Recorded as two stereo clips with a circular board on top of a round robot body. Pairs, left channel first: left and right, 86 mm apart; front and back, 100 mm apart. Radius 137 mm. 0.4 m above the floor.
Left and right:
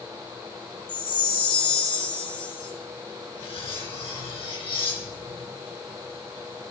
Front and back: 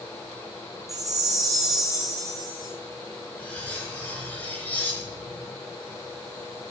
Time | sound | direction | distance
0.9 | a chime | 120° left | 4 m
3.4 | cutlery clinking | 75° left | 4 m